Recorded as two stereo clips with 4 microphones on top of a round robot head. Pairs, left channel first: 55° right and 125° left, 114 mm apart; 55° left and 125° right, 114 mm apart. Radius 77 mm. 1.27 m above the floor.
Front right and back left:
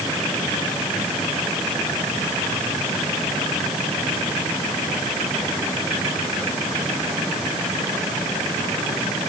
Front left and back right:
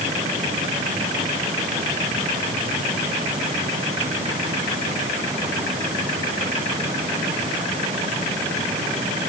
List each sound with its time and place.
Only background noise.